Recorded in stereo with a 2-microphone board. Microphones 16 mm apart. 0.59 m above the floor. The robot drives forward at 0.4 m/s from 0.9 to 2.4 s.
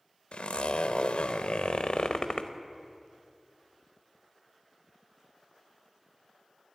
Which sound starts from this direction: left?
A zipper, at 0.3 s.